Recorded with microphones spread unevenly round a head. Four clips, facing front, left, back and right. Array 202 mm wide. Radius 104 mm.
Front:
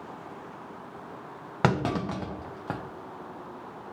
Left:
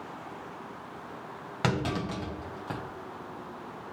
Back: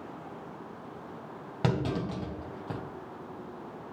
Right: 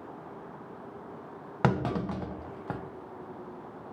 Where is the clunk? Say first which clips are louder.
Right 2 dB, front 4 dB; 25° right, 1.0 m.